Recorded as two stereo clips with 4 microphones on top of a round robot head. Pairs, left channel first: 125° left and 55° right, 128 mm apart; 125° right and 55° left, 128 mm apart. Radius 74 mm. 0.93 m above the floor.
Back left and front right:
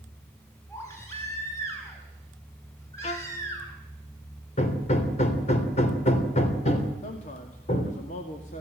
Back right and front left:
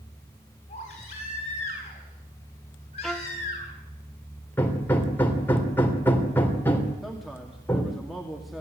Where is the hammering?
160° left, 3 m.